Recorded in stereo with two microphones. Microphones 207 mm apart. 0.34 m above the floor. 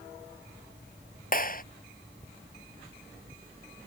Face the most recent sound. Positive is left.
turn(degrees=45)  # may be behind; listen again after turning